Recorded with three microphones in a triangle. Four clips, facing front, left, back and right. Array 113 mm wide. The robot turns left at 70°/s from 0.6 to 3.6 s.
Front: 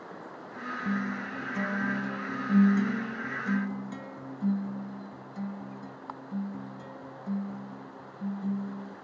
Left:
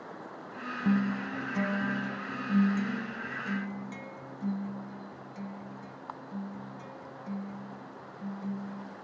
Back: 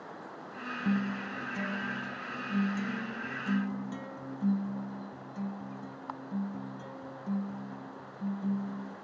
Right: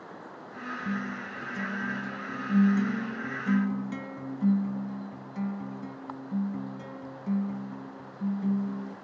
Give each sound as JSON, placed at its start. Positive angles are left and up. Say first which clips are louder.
{"t": 0.8, "sound": "a guitar", "louder": "left 7 dB, back 1 dB", "azimuth_deg": 110, "distance_m": 1.1}